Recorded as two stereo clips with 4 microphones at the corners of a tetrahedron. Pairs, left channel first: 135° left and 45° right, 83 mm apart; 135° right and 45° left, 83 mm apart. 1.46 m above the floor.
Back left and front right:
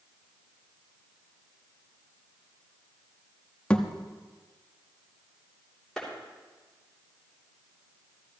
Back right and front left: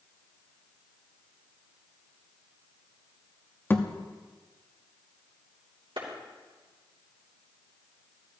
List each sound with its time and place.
3.7 s a thud: 160° right, 0.9 m
6.0 s a clap: 50° left, 3.5 m